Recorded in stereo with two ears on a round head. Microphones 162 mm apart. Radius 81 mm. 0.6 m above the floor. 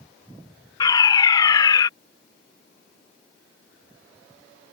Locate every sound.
0.8 s a fire alarm: 25° left (ahead or behind)